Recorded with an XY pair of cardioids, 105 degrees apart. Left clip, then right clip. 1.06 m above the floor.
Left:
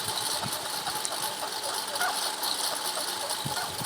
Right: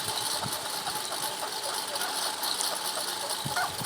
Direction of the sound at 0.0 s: Straight ahead.